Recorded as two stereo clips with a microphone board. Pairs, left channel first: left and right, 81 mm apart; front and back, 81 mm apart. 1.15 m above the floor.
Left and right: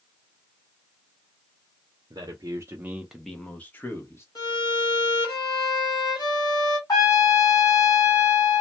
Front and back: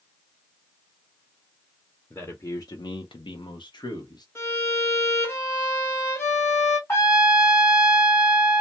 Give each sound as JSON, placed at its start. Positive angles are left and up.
{"t": 2.1, "sound": "a man speaking", "azimuth_deg": -65, "distance_m": 0.6}
{"t": 4.3, "sound": "a violin", "azimuth_deg": 60, "distance_m": 1.4}
{"t": 6.9, "sound": "a trumpet", "azimuth_deg": 55, "distance_m": 1.4}